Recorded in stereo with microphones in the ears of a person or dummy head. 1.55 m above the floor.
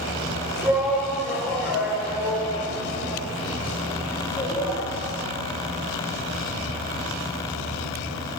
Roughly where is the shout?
Centre.